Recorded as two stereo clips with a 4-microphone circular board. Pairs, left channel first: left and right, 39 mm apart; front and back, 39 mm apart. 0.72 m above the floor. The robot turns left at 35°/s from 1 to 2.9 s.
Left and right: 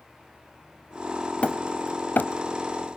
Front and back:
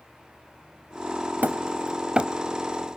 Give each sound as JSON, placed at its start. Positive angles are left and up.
{"t": 1.4, "sound": "hammering", "azimuth_deg": 145, "distance_m": 1.2}